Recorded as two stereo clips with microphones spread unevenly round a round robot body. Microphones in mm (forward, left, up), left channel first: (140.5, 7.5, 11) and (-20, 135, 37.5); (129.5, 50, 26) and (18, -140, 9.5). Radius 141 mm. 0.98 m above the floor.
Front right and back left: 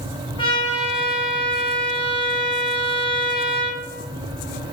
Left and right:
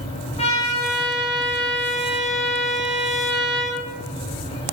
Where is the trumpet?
5° left, 1.0 m.